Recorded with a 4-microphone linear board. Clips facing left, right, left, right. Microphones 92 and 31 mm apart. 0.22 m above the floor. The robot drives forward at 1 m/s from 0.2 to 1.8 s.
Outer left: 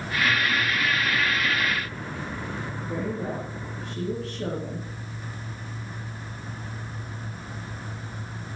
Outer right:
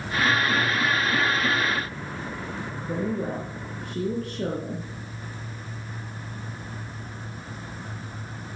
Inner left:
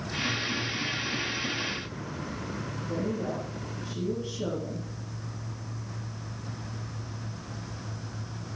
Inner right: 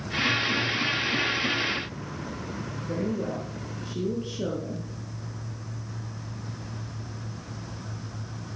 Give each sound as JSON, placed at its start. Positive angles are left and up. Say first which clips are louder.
{"t": 2.8, "sound": "a woman speaking", "louder": "outer right 3 dB, inner right 2 dB", "side_deg": -50, "distance_m": 4.0}